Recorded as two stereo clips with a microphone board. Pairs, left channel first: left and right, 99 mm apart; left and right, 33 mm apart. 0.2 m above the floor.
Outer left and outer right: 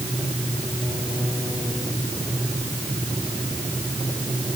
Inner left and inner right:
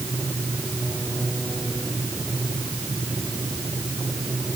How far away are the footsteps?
I don't hear footsteps.